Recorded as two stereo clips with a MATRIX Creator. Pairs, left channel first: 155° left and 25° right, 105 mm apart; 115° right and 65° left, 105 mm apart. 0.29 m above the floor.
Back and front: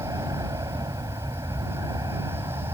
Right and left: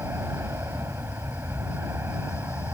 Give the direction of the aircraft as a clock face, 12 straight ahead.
12 o'clock.